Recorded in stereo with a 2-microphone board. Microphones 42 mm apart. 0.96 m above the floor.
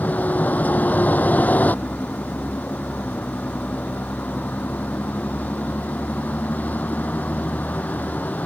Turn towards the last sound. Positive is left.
turn(degrees=40)  # may be behind; listen again after turning